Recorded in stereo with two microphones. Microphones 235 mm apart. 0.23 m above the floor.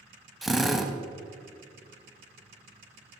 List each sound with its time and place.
0.4 s a drill: centre (ahead or behind), 0.6 m